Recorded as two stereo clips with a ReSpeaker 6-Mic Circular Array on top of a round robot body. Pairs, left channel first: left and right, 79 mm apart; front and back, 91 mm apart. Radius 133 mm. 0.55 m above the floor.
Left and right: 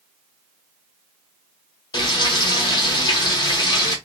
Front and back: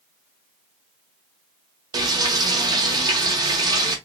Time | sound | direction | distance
1.9 | frying | 130° left | 1.1 m